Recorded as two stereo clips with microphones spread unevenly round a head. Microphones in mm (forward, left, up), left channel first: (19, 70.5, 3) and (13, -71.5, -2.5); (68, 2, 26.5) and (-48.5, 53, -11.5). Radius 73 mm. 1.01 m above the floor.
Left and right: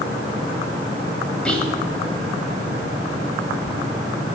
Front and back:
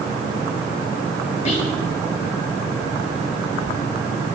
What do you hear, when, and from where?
1.4 s whispering: 5° left, 5.5 m